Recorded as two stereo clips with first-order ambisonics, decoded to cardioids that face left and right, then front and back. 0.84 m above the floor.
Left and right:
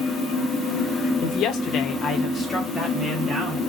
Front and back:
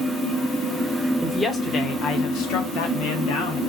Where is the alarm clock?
I don't hear an alarm clock.